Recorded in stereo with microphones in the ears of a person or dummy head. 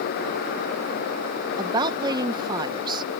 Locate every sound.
1.6 s a woman speaking: 30° right (ahead or behind)